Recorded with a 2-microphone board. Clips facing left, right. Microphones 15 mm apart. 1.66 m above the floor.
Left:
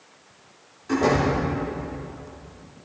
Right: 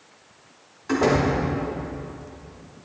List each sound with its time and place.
0.9 s a door slam: 20° right (ahead or behind), 3 m